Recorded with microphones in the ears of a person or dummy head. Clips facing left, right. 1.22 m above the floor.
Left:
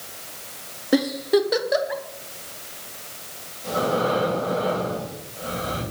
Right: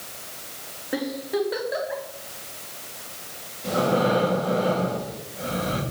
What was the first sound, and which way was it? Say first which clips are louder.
A giggle: left 7 dB; 50° left (ahead or behind).